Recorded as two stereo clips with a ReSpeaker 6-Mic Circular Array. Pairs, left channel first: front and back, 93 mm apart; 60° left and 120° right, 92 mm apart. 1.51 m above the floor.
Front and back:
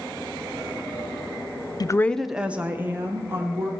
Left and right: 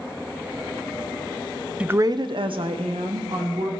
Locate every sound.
1.8 s a woman speaking: 40° right, 0.5 m; by 3.7 s 120° right, 2.5 m